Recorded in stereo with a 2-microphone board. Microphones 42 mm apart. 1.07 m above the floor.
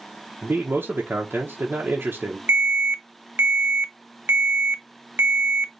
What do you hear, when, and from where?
0.4 s a man speaking: 50° right (ahead or behind), 1.0 m
2.5 s an alarm: 65° right (ahead or behind), 0.5 m